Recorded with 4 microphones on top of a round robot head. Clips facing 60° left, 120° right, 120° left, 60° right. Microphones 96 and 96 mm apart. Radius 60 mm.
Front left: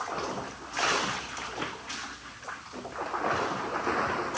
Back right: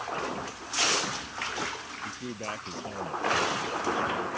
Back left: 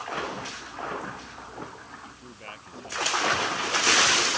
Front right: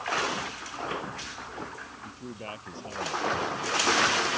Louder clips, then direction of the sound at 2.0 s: Back right 6 dB, front right 4 dB; 125° right.